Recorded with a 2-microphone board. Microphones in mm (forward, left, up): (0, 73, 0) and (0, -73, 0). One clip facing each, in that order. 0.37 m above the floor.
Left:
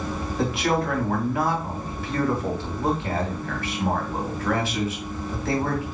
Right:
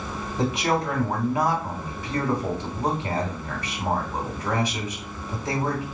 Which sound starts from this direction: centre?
A man speaking, at 0.4 s.